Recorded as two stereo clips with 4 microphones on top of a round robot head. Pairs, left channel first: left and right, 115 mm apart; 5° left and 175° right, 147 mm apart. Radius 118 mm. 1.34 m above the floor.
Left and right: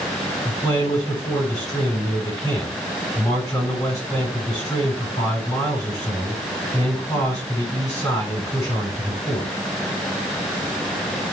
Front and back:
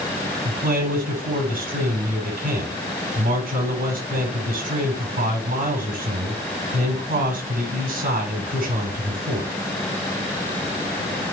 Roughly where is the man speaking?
Behind.